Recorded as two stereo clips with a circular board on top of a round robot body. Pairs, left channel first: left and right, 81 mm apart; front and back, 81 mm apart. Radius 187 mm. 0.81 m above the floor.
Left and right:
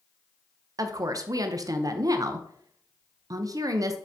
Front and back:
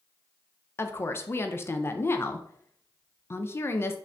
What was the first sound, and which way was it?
A woman speaking, 55° right.